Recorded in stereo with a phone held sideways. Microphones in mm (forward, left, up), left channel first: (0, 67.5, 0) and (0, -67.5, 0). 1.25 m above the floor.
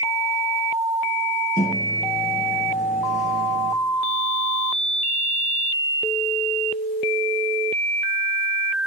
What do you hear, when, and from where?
1.6 s a microwave: 85° left, 1.1 m